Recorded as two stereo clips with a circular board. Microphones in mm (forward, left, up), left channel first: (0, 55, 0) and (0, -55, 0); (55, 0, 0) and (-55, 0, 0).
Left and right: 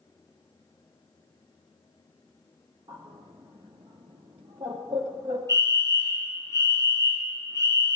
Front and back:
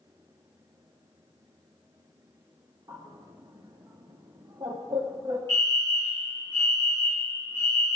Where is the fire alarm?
50° right, 1.9 m.